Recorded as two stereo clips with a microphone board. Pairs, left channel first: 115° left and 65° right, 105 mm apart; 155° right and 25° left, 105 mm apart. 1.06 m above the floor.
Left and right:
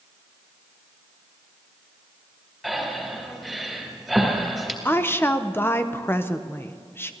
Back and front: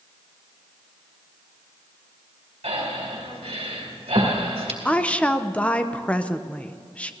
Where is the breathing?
25° left, 3 m.